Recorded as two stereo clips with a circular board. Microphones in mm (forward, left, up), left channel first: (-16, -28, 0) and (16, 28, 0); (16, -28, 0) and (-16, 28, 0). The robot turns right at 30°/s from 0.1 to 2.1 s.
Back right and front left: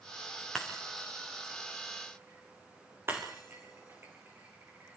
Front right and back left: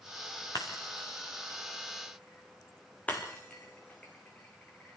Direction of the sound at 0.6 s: 40° right.